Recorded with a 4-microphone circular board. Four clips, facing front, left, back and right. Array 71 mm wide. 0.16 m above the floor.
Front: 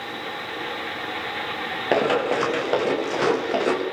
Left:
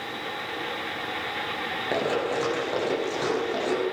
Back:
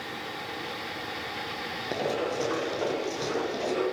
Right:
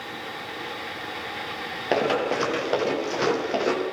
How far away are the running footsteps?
About 8.5 m.